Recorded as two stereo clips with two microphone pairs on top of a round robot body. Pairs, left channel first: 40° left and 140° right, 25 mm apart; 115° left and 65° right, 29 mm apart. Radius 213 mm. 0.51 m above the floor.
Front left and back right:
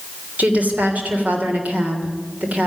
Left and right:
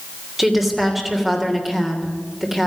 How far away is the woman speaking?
About 3 m.